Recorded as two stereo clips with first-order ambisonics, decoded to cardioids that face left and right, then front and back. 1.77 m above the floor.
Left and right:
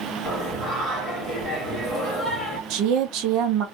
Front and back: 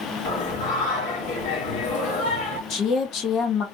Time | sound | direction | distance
0.2 | singing | 5° right | 2.5 m
2.7 | a woman speaking | 55° right | 0.9 m